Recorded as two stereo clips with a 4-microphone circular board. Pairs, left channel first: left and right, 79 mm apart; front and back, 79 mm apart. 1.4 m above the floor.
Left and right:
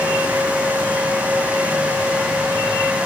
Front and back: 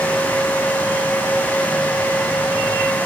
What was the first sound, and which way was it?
Only background noise.